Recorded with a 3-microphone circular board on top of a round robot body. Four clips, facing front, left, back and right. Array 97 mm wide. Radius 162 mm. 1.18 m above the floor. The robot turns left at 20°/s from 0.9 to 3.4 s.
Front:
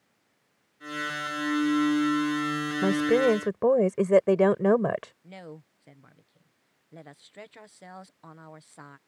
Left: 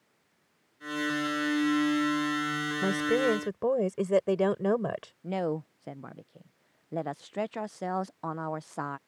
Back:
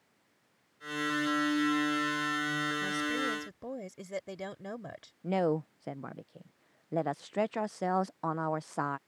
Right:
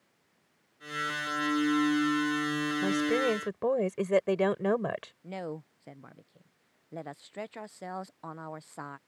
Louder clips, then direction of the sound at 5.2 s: Left 11 dB, back 15 dB; 155° left.